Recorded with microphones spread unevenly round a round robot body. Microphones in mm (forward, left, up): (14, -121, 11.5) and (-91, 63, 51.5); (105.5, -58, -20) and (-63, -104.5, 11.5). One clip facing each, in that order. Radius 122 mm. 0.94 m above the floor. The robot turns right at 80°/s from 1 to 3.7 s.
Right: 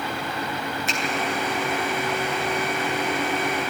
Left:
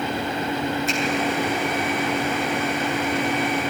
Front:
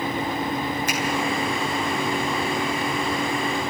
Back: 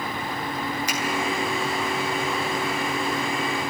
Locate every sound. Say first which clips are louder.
0.9 s a finger snap: left 5 dB, front 2 dB; 20° right, 9.5 m